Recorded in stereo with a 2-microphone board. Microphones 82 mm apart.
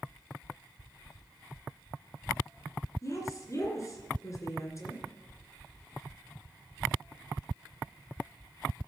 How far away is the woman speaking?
About 2.5 m.